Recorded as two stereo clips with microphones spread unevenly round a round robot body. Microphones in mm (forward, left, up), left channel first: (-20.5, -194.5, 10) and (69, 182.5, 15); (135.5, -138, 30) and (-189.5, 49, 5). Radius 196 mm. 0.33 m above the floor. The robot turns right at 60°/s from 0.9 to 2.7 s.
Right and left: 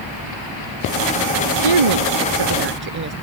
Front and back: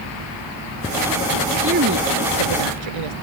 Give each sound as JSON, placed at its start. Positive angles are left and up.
{"t": 1.6, "sound": "a woman speaking", "azimuth_deg": 75}